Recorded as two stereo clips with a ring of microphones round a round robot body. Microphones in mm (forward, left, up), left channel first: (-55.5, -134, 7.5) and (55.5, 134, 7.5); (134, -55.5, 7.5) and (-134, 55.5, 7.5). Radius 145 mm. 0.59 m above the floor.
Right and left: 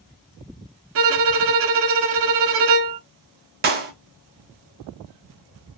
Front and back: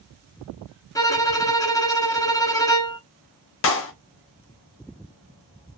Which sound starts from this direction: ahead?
A clap, at 3.6 s.